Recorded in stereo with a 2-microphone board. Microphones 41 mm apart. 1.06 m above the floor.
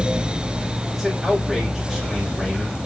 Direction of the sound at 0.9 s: 10° right (ahead or behind).